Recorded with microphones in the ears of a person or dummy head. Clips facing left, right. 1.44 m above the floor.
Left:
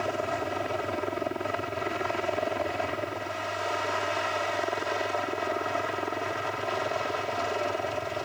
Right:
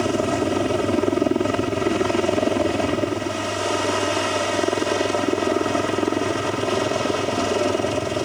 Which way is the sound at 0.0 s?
55° right (ahead or behind).